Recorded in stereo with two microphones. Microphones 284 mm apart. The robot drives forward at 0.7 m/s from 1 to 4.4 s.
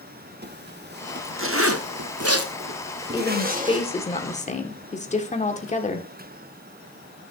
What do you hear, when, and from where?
0.4 s a zipper: 35° right (ahead or behind), 1.1 m; by 3.9 s 25° right (ahead or behind), 1.5 m
3.1 s a woman speaking: 15° left (ahead or behind), 2.5 m; by 6.1 s 25° left (ahead or behind), 1.5 m